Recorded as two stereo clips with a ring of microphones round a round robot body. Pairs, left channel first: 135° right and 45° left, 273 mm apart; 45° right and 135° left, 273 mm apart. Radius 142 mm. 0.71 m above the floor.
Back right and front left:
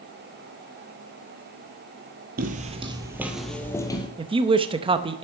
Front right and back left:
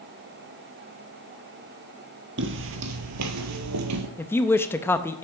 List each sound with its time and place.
2.4 s footsteps: 95° left, 1.0 m; by 4.1 s 155° left, 1.2 m
4.2 s a woman speaking: 20° left, 0.6 m